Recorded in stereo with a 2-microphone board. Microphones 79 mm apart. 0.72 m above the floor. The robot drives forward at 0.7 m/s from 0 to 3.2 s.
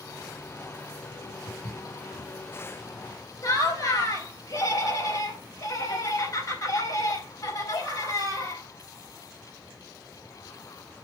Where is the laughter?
55° left (ahead or behind), 4 m.